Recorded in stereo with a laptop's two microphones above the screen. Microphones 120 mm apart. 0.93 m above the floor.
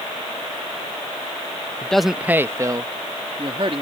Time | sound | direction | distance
1.8 | a man speaking | 10° left (ahead or behind) | ?